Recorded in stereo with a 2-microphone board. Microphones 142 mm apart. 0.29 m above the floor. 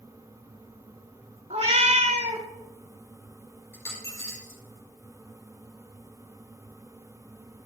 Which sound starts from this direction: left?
A dropped coin, at 3.7 s.